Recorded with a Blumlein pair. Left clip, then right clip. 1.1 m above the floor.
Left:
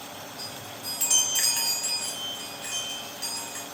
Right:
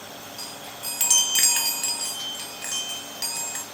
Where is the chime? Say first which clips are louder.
Right 3 dB; 25° right, 0.6 m.